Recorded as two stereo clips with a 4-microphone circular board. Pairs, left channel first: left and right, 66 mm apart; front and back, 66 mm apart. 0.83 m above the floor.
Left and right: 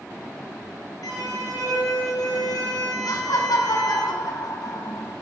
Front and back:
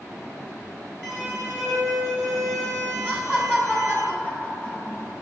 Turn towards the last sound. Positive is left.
turn(degrees=70)